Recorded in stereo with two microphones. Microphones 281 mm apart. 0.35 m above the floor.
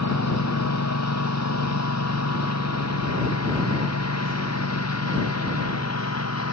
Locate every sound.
0.0 s a lawn mower: 80° left; by 6.5 s 70° left (ahead or behind)